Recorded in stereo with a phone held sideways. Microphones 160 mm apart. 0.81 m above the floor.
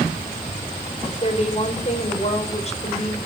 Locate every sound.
1.0 s a woman speaking: 45° left (ahead or behind), 4 m